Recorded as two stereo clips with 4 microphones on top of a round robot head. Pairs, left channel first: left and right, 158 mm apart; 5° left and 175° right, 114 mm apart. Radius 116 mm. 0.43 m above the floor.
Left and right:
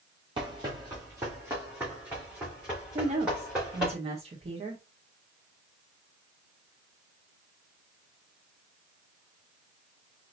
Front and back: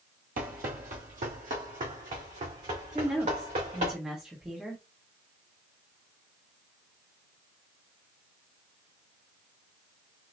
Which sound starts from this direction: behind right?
Running footsteps, at 0.4 s.